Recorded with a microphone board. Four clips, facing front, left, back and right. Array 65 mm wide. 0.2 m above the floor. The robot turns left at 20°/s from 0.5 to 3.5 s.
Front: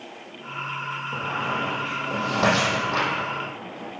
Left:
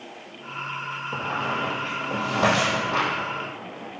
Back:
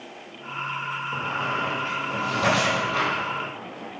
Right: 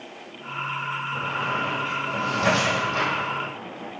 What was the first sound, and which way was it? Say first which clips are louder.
A squeak: left 1 dB, even; 80° left.